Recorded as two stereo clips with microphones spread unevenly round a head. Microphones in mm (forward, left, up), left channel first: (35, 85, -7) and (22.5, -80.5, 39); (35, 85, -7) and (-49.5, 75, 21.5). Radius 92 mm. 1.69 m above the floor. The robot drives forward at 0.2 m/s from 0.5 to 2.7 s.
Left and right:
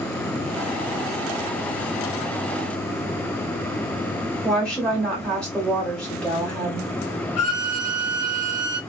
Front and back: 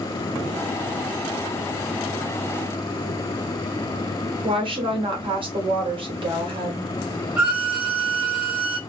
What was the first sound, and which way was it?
A woman speaking, 170° left.